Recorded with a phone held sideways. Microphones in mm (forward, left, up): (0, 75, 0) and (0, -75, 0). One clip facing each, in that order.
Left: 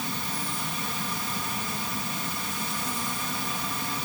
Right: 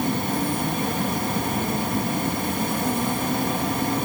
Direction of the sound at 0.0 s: 55° right (ahead or behind).